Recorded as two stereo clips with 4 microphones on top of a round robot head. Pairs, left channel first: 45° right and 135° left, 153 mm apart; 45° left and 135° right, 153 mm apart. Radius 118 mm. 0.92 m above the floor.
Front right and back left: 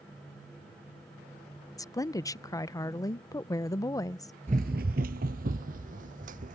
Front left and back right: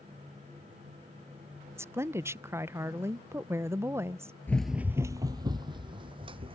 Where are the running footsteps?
115° left; by 6.5 s 170° left.